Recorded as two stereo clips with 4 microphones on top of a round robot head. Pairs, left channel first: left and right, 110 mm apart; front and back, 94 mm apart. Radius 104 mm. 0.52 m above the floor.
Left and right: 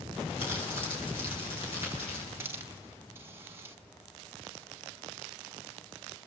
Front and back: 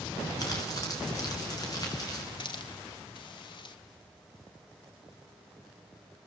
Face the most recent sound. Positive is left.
turn(degrees=-25)